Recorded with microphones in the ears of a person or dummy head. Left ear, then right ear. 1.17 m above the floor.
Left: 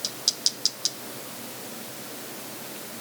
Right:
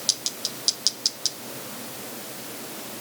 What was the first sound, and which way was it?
Only background noise.